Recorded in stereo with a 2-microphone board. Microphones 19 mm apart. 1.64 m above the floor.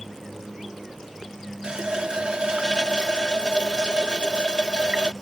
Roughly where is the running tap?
Right.